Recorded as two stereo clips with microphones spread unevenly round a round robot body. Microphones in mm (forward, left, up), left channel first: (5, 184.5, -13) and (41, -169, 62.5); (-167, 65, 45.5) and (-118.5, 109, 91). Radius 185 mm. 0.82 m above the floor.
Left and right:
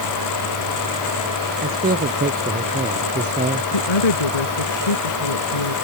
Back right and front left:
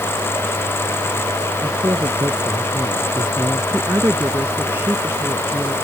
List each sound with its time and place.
1.6 s a man speaking: 20° right; by 3.6 s 15° right
3.7 s a woman speaking: 90° left